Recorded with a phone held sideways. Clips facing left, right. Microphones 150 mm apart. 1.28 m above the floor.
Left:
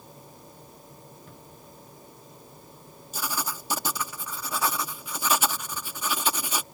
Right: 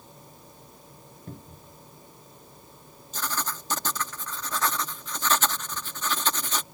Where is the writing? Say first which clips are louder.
Even; 10° left (ahead or behind).